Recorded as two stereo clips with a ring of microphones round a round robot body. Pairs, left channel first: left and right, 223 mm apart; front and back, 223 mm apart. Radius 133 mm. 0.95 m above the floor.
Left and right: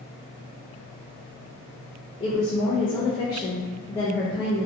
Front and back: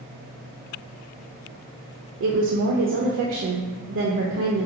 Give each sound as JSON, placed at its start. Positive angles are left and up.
{"t": 2.2, "sound": "a woman speaking", "azimuth_deg": 160, "distance_m": 0.5}